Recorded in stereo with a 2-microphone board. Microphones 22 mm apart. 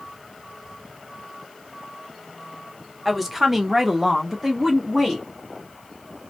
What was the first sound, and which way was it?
A woman speaking, 5° right (ahead or behind).